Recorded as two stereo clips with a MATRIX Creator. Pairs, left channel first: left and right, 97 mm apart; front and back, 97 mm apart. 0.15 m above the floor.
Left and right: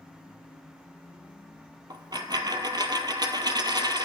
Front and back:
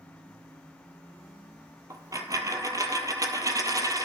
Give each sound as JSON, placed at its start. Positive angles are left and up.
{"t": 1.9, "sound": "a dropped coin", "azimuth_deg": -130, "distance_m": 0.5}